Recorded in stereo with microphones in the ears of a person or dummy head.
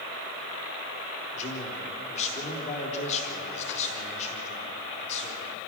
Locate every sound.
1.3 s a man speaking: 40° left (ahead or behind), 3.5 m